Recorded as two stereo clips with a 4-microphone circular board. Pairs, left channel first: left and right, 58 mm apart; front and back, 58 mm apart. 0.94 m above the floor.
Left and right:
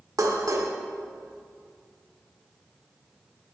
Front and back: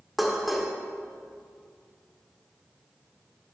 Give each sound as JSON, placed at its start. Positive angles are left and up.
{"t": 0.2, "sound": "dishes clattering", "azimuth_deg": -90, "distance_m": 1.5}